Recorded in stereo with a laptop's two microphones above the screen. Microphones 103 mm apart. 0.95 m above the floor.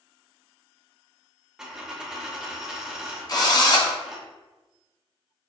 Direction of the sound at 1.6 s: 5° right (ahead or behind).